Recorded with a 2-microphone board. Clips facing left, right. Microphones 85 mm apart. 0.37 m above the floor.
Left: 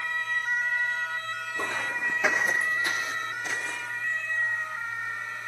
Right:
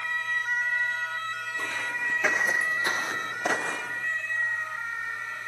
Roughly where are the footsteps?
Left.